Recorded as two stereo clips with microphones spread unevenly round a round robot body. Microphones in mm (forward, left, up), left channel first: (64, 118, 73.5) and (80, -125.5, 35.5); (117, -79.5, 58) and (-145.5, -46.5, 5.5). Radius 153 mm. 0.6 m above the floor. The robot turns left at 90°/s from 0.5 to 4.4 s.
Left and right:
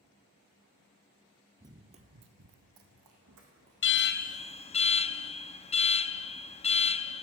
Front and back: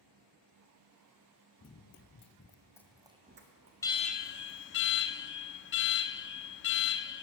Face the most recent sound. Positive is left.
turn(degrees=30)